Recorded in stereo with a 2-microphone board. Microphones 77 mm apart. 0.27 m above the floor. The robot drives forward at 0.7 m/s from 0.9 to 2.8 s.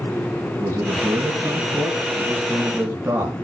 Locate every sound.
0.6 s a man speaking: 35° right (ahead or behind), 3 m; by 3.3 s 25° right (ahead or behind), 4 m